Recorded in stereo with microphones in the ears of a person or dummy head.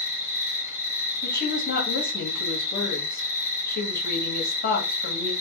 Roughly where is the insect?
Left.